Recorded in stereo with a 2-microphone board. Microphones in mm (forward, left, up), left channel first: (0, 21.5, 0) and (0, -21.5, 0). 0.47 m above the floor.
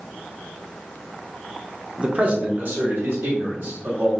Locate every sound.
2.0 s a man speaking: 20° right (ahead or behind), 1.0 m; by 4.1 s 60° right (ahead or behind), 2.5 m